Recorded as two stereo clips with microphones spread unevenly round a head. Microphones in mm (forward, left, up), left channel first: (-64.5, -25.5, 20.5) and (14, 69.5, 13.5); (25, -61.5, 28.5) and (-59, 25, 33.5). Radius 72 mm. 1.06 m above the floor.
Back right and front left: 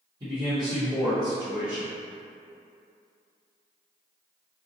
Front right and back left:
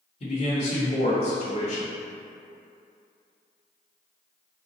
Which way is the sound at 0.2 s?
10° right.